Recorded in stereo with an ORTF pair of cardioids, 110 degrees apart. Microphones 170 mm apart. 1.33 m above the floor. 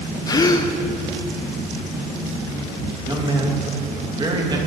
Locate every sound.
0.3 s a gasp: 25° left, 0.7 m
3.0 s a man speaking: 25° right, 2.5 m